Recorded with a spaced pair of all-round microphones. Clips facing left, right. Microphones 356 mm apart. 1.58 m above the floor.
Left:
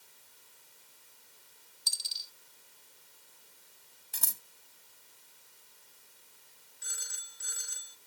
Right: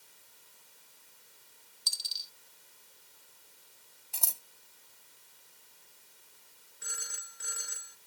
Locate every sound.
1.9 s a dropped coin: 20° right (ahead or behind)
4.1 s scissors: 25° left (ahead or behind)
6.8 s a phone ringing: 70° right (ahead or behind)